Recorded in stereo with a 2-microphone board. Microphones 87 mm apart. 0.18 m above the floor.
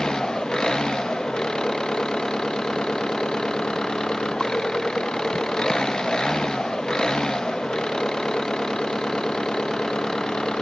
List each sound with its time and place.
0.0 s an engine running: 10° left (ahead or behind)